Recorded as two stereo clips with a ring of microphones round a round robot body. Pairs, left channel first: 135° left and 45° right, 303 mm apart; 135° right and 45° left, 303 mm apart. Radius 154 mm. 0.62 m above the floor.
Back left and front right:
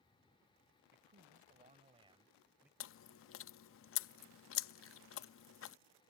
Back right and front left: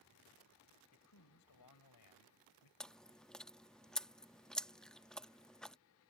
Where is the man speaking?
100° right; by 2.7 s 130° right.